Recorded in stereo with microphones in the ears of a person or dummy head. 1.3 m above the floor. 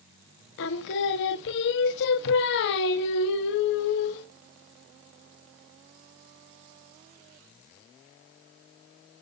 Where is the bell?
No bell in this recording.